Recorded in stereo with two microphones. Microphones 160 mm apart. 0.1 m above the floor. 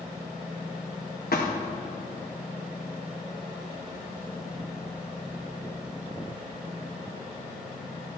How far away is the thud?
About 2.5 m.